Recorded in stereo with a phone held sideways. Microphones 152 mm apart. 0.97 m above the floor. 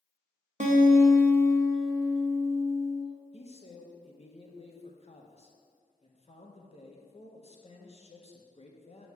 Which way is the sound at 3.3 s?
45° left (ahead or behind).